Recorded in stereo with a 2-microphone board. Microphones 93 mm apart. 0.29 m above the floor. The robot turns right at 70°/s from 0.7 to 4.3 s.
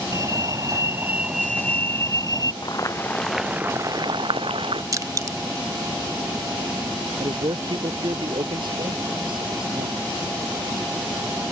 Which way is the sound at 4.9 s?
40° right (ahead or behind).